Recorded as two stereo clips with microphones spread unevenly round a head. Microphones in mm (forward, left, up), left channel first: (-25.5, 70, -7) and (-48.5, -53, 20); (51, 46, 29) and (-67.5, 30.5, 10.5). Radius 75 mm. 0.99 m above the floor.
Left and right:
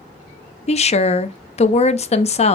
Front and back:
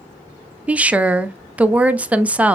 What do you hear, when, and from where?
0.7 s a woman speaking: 110° left, 0.5 m